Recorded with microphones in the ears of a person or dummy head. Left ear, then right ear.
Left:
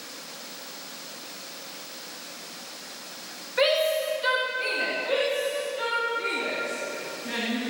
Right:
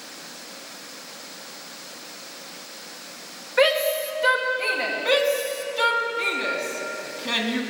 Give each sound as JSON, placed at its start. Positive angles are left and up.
{"t": 3.6, "sound": "a shout", "side_deg": -15, "distance_m": 2.0}
{"t": 5.0, "sound": "a shout", "side_deg": -75, "distance_m": 3.0}